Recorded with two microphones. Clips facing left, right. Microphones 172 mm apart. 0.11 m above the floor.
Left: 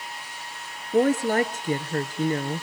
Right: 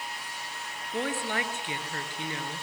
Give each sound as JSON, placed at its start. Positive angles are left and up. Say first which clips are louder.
{"t": 0.9, "sound": "a woman speaking", "louder": "left 11 dB", "side_deg": 40, "distance_m": 1.8}